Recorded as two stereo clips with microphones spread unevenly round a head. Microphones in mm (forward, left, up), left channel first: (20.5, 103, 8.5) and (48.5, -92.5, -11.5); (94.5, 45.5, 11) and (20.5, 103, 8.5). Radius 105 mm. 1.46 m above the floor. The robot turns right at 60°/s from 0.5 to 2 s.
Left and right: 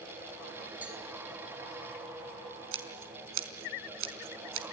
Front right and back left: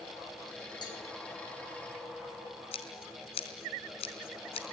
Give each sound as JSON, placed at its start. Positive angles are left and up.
{"t": 0.8, "sound": "a cowbell", "azimuth_deg": 0, "distance_m": 5.5}
{"t": 2.7, "sound": "scissors", "azimuth_deg": -65, "distance_m": 4.0}